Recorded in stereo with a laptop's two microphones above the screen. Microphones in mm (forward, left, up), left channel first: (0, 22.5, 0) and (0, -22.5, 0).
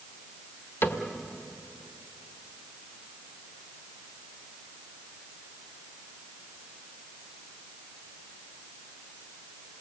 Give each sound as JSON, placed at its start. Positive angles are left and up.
{"t": 0.8, "sound": "a cupboard door", "side_deg": 60, "distance_m": 1.6}